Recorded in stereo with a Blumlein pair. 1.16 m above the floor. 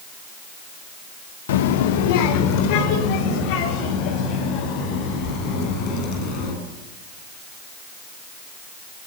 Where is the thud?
I don't hear a thud.